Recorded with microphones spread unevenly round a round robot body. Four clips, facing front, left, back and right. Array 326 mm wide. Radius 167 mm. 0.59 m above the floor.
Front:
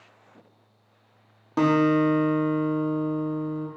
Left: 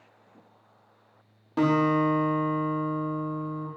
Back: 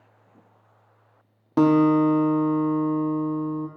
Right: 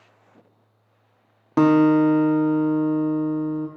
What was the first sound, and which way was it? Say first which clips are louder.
A guitar: right 8 dB, back 3 dB; 115° right.